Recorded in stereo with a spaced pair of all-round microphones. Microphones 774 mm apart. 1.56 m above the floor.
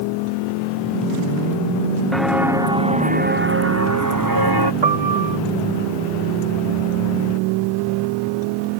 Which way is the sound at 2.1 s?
Centre (ahead or behind).